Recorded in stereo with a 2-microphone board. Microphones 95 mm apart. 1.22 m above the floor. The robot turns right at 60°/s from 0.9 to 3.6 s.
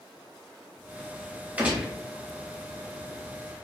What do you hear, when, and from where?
1.6 s a gunshot: 20° right (ahead or behind), 0.9 m; by 1.9 s 5° left (ahead or behind), 0.9 m